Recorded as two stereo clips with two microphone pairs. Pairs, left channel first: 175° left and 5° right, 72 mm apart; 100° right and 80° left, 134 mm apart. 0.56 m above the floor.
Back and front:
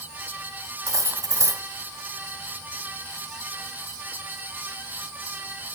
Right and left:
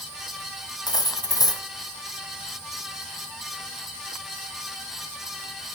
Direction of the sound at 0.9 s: 40° right.